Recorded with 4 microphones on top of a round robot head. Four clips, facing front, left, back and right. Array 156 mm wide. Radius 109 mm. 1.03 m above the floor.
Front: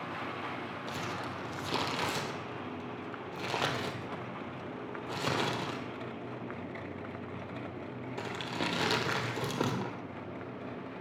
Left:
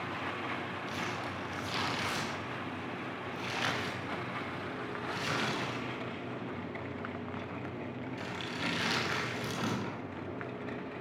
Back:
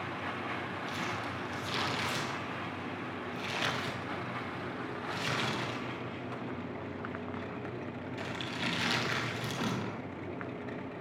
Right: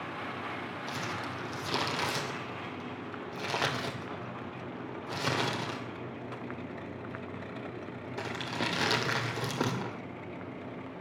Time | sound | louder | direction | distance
0.9 | crumpling | right 2 dB, front 1 dB | 45° right | 2.5 m